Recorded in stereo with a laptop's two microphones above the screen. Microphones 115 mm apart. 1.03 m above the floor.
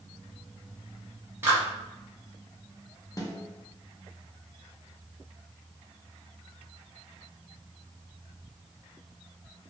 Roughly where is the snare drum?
Left.